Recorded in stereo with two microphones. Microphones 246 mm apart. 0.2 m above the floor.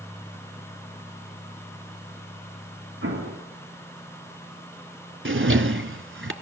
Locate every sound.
3.0 s an explosion: 70° right (ahead or behind), 3 m
5.2 s a drawer: 55° right (ahead or behind), 0.8 m